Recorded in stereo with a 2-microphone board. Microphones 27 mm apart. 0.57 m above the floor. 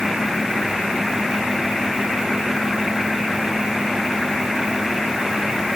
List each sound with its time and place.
Only background noise.